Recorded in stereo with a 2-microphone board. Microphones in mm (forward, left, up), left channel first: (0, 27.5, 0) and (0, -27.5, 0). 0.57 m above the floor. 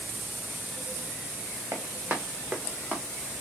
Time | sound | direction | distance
1.7 | running footsteps | 45° right (ahead or behind) | 1.5 m